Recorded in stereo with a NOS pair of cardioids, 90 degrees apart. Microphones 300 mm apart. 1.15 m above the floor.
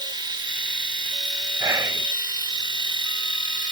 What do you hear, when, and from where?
0.0 s a machine running: 15° right, 4 m
1.6 s whispering: 10° right, 0.5 m